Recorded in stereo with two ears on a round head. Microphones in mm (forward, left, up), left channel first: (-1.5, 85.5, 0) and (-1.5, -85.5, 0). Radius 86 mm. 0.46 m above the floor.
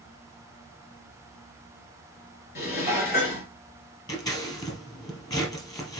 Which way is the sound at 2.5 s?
50° left (ahead or behind).